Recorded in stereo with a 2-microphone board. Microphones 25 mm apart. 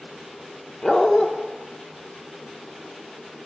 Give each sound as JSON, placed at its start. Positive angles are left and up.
{"t": 0.8, "sound": "a dog barking", "side_deg": 20, "distance_m": 0.9}